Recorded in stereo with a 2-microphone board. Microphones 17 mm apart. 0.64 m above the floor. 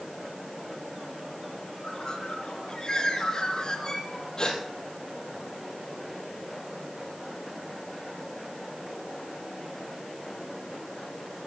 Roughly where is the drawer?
No drawer in this recording.